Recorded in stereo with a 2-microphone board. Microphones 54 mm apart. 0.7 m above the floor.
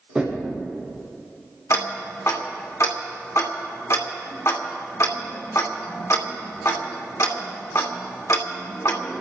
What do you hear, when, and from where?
0.1 s knocking: 10° right (ahead or behind), 7 m
1.7 s ticking: 65° left (ahead or behind), 1.7 m